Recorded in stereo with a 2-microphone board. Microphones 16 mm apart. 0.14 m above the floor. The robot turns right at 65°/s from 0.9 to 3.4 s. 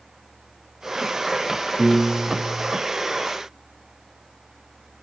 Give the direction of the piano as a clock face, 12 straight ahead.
2 o'clock.